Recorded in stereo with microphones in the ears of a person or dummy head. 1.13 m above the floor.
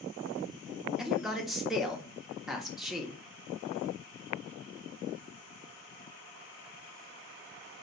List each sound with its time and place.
1.0 s a man speaking: 5° right (ahead or behind), 0.5 m